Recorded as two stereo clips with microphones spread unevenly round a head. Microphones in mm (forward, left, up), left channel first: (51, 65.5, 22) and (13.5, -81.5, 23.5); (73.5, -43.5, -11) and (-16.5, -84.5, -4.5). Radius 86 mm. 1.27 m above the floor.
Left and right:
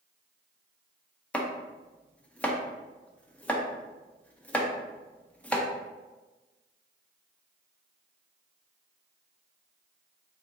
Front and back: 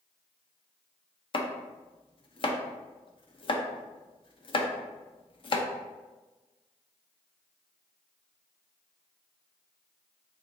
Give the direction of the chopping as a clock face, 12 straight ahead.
12 o'clock.